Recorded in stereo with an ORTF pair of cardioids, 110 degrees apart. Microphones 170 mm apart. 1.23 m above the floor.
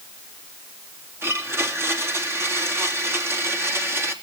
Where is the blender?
15° right, 2.5 m.